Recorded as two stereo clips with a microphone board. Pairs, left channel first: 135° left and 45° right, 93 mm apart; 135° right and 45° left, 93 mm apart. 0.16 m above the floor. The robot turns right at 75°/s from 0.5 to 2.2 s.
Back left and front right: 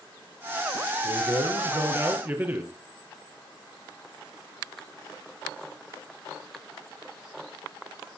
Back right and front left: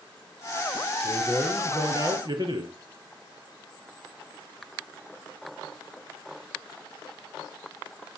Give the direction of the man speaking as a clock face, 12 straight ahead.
2 o'clock.